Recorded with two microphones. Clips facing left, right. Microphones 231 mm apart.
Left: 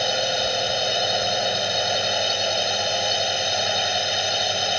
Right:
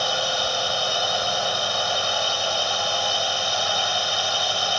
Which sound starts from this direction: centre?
A drone, at 0.0 s.